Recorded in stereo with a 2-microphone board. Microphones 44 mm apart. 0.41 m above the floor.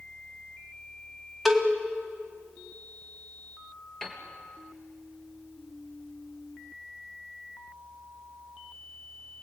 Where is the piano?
5° left (ahead or behind), 3.5 m.